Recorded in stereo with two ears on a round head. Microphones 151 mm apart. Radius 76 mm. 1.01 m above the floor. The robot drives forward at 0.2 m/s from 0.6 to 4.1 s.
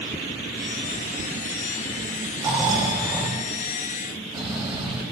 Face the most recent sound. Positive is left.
turn(degrees=-25)  # may be behind; listen again after turning